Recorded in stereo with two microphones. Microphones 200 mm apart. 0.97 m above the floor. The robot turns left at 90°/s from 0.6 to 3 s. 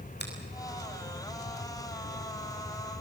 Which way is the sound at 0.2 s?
60° left (ahead or behind).